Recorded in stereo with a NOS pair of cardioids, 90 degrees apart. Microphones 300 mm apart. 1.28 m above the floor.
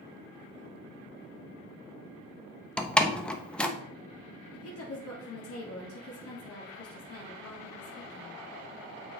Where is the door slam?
5° left, 1.0 m.